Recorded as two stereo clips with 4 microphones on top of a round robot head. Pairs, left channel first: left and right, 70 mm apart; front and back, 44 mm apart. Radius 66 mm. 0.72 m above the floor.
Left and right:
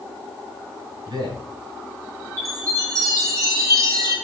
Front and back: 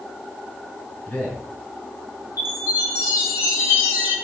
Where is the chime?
45° right, 3.5 m.